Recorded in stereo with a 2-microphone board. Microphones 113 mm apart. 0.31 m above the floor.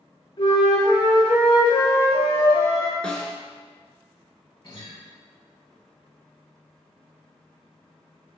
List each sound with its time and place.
0.4 s a flute: 55° left (ahead or behind), 1.0 m
3.0 s a snare drum: 10° left (ahead or behind), 0.6 m
4.6 s a guitar: 45° left (ahead or behind), 1.2 m